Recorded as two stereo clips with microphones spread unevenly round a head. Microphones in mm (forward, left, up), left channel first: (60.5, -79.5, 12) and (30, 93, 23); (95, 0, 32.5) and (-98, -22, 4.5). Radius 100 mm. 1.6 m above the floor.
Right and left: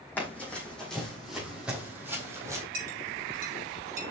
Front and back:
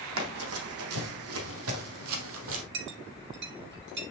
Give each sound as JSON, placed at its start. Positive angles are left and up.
{"t": 0.2, "sound": "running footsteps", "azimuth_deg": -165, "distance_m": 4.0}
{"t": 2.7, "sound": "a clink", "azimuth_deg": 150, "distance_m": 6.0}